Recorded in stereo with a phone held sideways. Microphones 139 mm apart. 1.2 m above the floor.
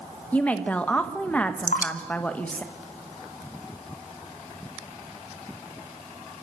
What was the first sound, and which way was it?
A woman speaking, 10° left (ahead or behind).